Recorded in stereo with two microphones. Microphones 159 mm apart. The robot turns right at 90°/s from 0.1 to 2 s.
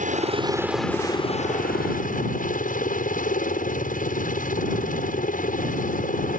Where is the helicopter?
60° right; by 6.4 s 110° left.